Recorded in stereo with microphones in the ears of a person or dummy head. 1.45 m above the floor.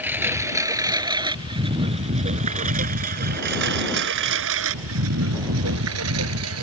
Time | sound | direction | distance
0.0 | a lawn mower | 10° right (ahead or behind) | ?